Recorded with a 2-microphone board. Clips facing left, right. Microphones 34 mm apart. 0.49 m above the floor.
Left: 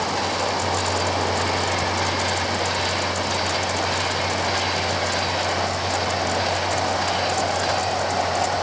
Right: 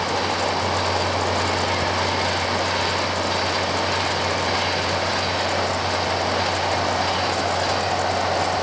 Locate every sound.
Only background noise.